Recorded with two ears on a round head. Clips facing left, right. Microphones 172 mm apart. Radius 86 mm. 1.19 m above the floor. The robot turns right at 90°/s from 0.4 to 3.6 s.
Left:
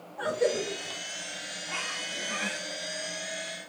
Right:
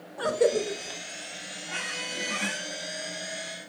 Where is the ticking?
No ticking in this recording.